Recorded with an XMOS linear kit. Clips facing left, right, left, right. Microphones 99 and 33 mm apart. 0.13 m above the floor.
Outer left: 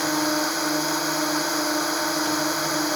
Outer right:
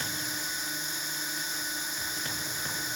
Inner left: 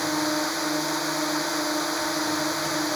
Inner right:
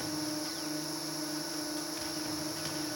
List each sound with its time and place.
0.0 s a drone: 70° left (ahead or behind)